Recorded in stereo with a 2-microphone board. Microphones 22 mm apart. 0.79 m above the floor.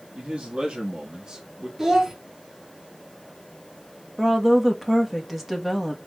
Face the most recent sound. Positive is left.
turn(degrees=-5)  # may be behind; listen again after turning